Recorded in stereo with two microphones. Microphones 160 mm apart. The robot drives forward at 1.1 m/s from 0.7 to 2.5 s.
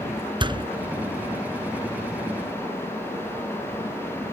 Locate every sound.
0.4 s a door slam: 30° right (ahead or behind)